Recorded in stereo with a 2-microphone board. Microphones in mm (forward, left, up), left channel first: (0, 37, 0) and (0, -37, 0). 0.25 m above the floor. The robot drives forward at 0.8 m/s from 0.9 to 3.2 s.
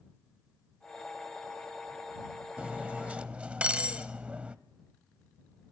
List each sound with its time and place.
2.6 s cutlery clinking: 15° right (ahead or behind), 0.6 m